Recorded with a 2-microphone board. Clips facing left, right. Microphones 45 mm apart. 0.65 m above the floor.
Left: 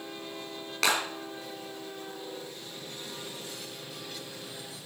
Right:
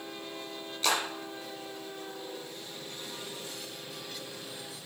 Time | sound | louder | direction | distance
0.8 | a clap | left 2 dB | 85° left | 6 m